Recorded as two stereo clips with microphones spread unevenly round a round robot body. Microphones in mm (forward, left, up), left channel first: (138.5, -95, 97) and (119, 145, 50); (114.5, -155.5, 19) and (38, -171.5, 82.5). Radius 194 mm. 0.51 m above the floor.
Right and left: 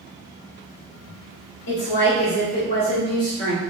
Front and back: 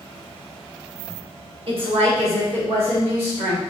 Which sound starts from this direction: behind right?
A woman speaking, at 1.7 s.